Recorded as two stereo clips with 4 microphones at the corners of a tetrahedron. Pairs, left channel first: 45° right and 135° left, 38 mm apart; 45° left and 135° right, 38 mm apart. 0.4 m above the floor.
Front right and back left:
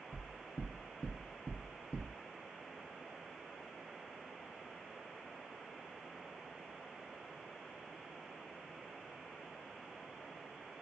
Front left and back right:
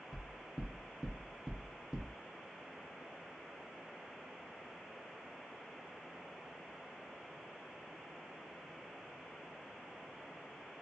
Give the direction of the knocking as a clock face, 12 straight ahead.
2 o'clock.